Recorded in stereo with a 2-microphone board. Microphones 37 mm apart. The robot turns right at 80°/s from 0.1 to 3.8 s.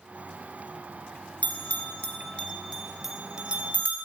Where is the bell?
40° left (ahead or behind), 1.0 m; by 4.0 s 40° right (ahead or behind), 1.0 m.